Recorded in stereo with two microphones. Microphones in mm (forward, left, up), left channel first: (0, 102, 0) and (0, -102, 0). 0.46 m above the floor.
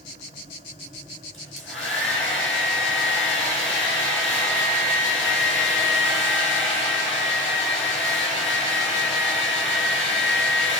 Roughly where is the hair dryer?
Left.